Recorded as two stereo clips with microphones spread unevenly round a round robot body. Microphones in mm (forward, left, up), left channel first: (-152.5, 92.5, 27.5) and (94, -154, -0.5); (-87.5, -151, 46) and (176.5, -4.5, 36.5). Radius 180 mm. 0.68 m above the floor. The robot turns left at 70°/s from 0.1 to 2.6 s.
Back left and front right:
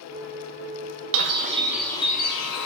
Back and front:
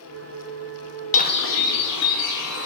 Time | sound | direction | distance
1.1 | a bird | 85° right | 0.6 m